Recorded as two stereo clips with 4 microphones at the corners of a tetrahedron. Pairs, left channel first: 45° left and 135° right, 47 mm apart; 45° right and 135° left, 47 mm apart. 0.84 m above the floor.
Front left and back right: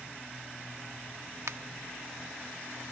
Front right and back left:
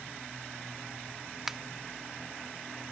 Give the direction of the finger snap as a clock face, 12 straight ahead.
5 o'clock.